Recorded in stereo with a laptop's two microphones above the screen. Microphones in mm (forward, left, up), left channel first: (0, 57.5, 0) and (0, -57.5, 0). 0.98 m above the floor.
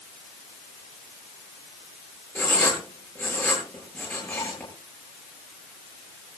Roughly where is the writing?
Centre.